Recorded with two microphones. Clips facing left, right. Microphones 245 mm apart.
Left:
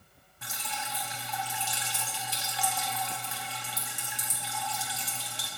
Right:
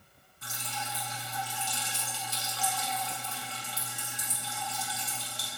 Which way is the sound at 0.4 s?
80° left.